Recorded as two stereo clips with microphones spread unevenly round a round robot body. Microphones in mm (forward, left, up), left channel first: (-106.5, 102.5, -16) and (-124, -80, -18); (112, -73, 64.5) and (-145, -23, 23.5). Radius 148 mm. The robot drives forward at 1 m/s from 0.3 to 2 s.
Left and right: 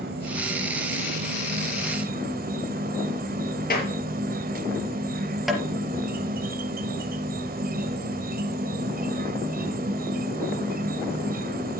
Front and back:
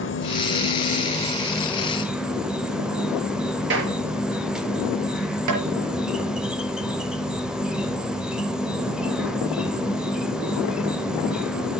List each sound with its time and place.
0.0 s an insect: 50° right, 2 m; by 11.8 s 110° right, 2.0 m
3.7 s a clap: 120° left, 6 m
5.5 s tapping: 175° left, 4 m